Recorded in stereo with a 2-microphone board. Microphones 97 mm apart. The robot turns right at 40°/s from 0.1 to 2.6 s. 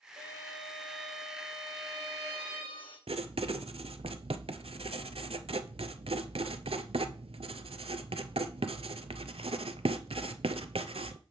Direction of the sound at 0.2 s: 40° right.